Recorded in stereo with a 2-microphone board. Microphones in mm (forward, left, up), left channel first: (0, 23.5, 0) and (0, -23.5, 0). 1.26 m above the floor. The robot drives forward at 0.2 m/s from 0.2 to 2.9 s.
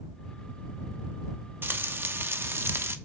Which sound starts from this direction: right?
Frying, at 1.6 s.